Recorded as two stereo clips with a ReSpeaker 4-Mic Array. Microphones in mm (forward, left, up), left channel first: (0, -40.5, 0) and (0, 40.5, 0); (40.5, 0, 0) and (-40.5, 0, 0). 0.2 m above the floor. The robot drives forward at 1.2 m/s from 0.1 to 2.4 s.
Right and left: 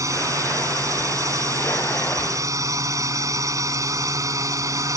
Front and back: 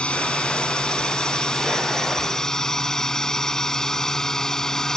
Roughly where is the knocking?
No knocking in this recording.